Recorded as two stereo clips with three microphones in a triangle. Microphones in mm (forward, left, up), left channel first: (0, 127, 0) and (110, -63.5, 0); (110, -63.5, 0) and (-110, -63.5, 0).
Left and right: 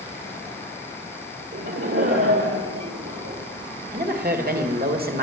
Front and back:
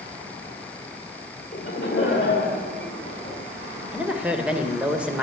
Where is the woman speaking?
95° right, 1.9 m.